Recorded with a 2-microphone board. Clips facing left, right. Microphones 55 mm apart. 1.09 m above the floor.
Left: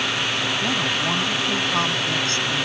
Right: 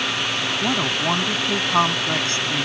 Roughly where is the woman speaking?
Right.